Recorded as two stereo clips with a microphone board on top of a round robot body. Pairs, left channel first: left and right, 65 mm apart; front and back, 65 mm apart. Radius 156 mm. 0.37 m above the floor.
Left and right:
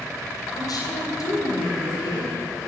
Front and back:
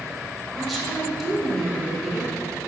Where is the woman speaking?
90° left, 2.5 m.